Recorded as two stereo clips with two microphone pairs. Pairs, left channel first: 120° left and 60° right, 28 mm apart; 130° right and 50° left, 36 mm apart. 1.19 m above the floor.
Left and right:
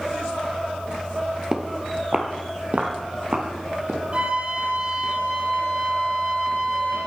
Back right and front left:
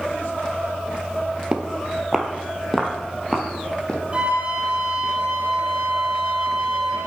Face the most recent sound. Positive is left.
turn(degrees=-15)